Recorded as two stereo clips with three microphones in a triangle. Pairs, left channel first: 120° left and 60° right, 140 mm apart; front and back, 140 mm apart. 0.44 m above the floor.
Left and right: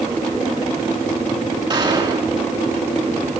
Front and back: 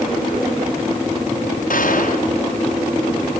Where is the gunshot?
5° right, 5.5 m.